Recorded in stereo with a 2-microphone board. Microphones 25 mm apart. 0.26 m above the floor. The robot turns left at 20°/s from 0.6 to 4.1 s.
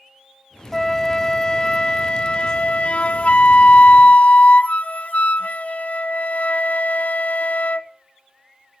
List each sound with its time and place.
0.7 s a flute: 165° left, 0.6 m; by 7.9 s 100° left, 0.6 m